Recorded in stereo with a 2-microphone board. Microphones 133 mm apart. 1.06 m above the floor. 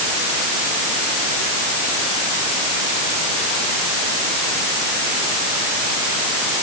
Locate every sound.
Only background noise.